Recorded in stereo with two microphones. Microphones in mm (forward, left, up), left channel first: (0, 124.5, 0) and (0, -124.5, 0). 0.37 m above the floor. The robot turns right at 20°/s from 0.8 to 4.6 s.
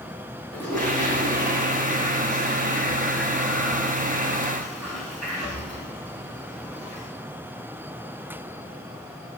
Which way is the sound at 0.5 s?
5° left.